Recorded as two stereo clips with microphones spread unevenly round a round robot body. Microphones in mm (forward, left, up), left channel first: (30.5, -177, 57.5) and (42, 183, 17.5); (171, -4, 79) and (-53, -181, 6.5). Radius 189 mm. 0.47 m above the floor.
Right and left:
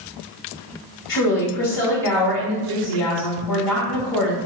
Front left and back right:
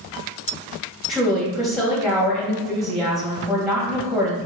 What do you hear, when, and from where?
1.1 s a woman speaking: 60° right, 3 m